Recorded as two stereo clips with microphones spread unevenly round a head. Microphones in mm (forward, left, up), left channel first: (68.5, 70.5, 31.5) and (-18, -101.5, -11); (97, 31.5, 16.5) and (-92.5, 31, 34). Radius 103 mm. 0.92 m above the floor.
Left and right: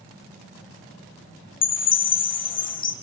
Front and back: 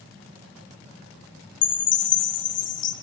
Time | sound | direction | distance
1.6 | a chime | 15° left | 1.3 m